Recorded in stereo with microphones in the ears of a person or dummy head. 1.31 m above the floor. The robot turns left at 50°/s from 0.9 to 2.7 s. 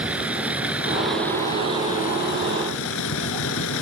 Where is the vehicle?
175° right; by 3.8 s 95° left.